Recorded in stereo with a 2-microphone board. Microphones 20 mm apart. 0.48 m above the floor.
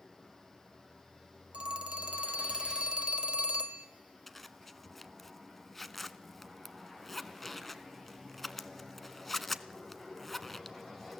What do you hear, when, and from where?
1.5 s a phone ringing: 60° right (ahead or behind), 1.4 m
4.3 s a zipper: 10° left (ahead or behind), 0.9 m